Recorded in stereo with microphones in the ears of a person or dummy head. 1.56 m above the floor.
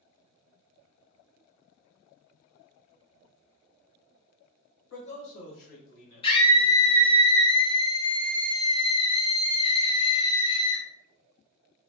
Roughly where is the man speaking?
Left.